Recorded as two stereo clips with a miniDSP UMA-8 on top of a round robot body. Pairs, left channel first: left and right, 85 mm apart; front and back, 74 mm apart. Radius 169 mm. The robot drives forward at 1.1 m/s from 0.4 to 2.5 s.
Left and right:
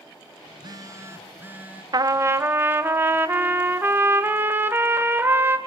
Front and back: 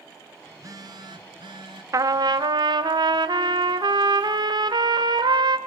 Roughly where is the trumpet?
Behind right.